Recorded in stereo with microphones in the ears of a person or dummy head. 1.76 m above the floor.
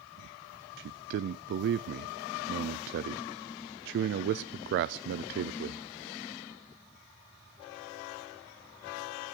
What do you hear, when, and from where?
0.8 s a man speaking: 60° right (ahead or behind), 0.5 m